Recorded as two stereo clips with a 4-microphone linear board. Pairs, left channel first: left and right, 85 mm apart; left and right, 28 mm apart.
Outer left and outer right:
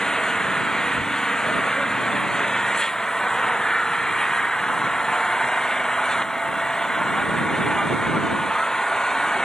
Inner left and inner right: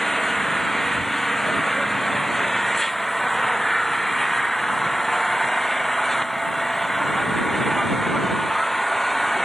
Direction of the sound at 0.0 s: 5° left (ahead or behind).